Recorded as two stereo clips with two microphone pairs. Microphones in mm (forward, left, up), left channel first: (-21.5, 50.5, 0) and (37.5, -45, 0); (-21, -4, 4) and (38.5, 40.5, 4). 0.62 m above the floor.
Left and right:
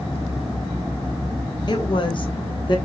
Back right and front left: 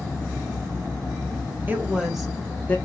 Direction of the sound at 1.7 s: 90° left.